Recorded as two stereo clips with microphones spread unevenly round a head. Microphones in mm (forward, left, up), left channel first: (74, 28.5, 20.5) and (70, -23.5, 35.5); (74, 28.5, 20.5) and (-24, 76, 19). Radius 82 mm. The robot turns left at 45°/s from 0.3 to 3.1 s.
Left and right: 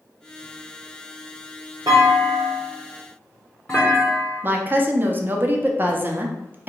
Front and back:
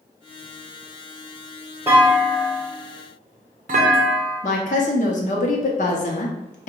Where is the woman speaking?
50° right, 0.6 m.